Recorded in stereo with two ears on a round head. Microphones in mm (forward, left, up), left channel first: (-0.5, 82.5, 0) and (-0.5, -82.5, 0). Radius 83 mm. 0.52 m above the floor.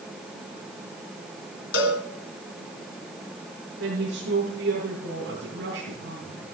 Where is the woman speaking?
65° right (ahead or behind), 6 m.